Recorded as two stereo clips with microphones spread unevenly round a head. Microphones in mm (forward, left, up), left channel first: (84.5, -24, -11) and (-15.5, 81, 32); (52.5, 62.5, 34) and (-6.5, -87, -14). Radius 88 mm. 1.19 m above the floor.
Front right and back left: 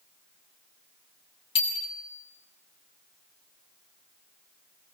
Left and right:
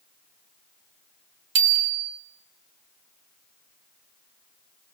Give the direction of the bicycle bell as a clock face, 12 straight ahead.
4 o'clock.